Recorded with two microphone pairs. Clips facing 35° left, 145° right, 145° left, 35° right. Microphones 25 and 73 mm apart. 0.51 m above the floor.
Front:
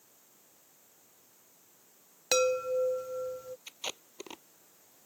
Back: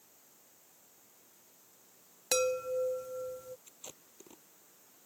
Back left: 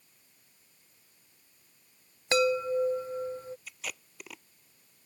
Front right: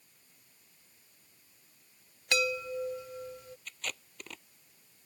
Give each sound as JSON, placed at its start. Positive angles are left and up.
{"t": 2.3, "sound": "a chime", "azimuth_deg": 100}
{"t": 3.7, "sound": "tape being pulled", "azimuth_deg": 60}